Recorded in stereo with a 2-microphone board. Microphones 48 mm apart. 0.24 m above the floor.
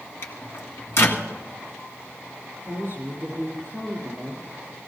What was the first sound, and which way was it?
A microwave, 60° left (ahead or behind).